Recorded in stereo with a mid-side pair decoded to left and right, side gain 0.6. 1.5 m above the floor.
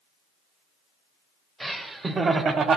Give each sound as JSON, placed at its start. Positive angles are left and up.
{"t": 1.6, "sound": "laughter", "azimuth_deg": -10, "distance_m": 1.2}